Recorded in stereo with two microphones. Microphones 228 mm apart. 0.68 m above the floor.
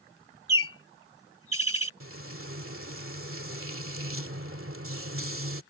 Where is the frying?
70° right (ahead or behind).